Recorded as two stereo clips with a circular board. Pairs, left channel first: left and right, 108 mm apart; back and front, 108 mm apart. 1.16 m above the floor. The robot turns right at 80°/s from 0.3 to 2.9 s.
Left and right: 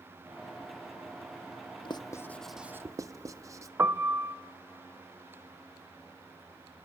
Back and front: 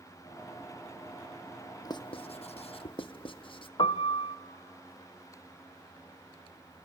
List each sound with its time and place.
1.9 s writing: 130° left, 0.7 m; by 3.7 s 150° right, 0.7 m
3.8 s a piano: 155° right, 0.5 m